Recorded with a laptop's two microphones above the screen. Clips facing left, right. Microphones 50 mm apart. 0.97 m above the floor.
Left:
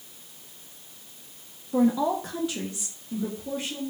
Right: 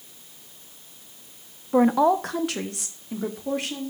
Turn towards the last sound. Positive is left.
turn(degrees=-65)  # may be behind; listen again after turning